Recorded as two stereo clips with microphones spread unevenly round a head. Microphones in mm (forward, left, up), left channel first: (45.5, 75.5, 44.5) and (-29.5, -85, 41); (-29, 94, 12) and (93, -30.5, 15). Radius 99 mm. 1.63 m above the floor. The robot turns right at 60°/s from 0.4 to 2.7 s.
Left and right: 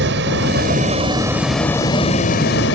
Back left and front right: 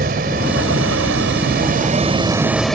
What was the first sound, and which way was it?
A vehicle, 95° right.